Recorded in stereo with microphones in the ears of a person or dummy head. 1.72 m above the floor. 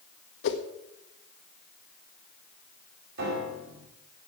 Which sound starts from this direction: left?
A whoosh, at 0.4 s.